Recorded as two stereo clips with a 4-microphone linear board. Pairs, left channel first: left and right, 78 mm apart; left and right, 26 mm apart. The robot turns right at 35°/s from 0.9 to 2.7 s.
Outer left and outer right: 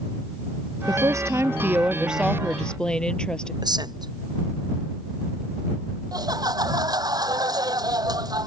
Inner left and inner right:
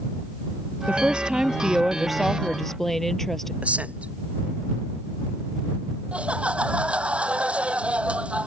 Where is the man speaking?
55° right (ahead or behind).